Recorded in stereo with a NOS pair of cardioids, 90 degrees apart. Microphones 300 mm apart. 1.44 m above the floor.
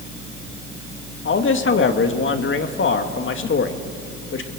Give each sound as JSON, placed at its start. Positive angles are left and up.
{"t": 1.2, "sound": "a man speaking", "azimuth_deg": 40, "distance_m": 2.5}